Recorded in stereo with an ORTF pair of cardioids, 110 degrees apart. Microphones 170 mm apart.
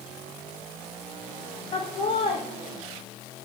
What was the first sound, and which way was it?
Laughter, 30° left.